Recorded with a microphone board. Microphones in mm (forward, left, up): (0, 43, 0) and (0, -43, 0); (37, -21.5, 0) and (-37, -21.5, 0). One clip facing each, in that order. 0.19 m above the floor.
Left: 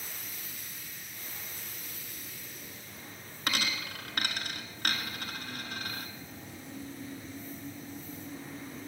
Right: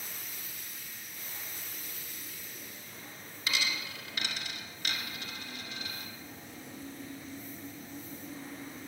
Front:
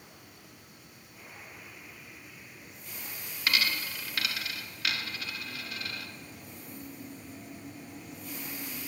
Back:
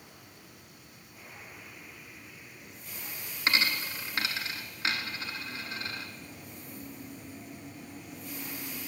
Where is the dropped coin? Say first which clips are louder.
Left 2 dB, back 1 dB; 120° left, 1.2 m.